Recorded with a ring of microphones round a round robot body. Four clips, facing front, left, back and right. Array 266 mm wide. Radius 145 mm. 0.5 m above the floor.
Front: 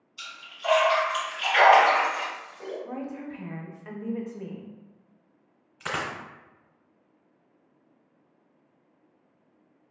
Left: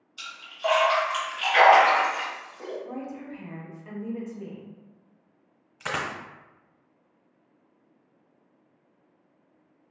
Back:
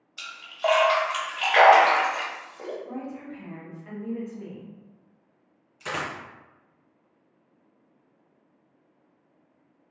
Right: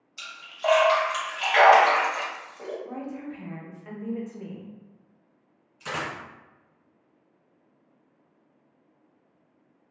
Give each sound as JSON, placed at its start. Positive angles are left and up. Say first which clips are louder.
{"t": 0.2, "sound": "a splash", "louder": "left 1 dB, back 9 dB", "azimuth_deg": -165, "distance_m": 1.0}
{"t": 2.9, "sound": "a woman speaking", "louder": "right 1 dB, front 1 dB", "azimuth_deg": -15, "distance_m": 0.7}
{"t": 5.8, "sound": "a dropped coin", "louder": "left 1 dB, even", "azimuth_deg": 60, "distance_m": 0.9}